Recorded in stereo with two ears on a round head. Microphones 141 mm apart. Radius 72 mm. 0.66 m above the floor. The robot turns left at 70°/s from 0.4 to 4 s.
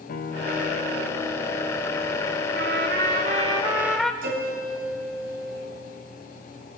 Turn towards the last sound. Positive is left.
turn(degrees=-65)  # may be behind; listen again after turning